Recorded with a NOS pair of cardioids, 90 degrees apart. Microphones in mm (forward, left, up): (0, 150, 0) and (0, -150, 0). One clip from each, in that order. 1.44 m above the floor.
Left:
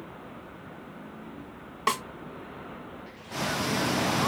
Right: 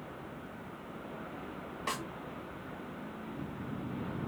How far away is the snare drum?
About 0.9 m.